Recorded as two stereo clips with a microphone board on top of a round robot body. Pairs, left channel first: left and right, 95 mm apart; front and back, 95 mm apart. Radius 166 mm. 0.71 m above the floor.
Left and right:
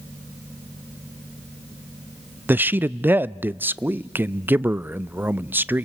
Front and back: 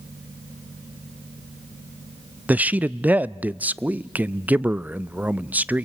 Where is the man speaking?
130° right, 0.5 m.